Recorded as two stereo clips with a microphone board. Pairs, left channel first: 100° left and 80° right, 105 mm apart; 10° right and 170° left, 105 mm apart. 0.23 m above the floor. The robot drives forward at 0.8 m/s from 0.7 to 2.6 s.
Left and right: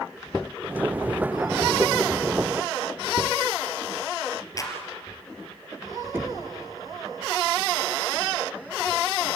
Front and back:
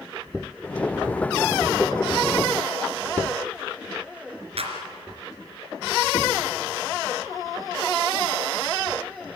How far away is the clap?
About 3 m.